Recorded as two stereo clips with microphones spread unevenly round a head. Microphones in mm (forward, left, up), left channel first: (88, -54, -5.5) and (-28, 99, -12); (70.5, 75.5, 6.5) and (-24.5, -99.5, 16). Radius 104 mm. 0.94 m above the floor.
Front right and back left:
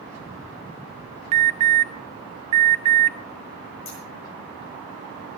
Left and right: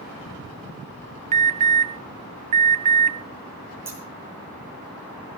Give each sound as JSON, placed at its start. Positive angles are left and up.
{"t": 1.3, "sound": "an alarm", "azimuth_deg": -175, "distance_m": 0.6}
{"t": 3.9, "sound": "scissors", "azimuth_deg": -40, "distance_m": 5.5}